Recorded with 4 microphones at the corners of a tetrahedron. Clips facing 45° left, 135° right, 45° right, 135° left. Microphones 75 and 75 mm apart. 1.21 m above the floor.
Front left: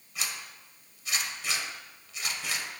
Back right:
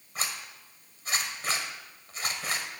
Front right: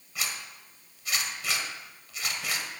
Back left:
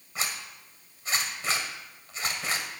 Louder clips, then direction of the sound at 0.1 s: Back right 2 dB, back left 2 dB; 175° right.